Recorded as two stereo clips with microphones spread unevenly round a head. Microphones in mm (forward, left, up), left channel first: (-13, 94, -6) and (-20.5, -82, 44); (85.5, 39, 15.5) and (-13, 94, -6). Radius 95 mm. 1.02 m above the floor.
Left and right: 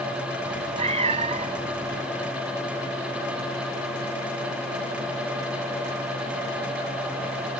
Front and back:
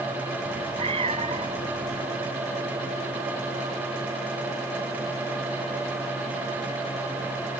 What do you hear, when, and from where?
0.4 s a cat meowing: 140° right